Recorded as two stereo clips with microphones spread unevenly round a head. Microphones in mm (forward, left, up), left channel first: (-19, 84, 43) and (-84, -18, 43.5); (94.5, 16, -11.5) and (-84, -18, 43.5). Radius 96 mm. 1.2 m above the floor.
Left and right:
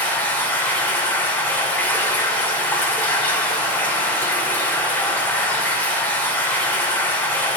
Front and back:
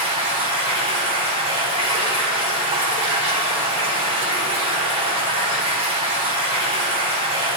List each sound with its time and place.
0.0 s running water: 135° left, 2.5 m